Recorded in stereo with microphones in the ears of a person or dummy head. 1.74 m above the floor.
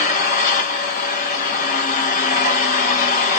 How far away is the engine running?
About 1.6 m.